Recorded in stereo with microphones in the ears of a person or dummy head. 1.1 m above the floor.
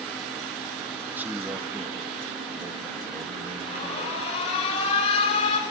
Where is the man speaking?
10° right (ahead or behind), 1.8 m.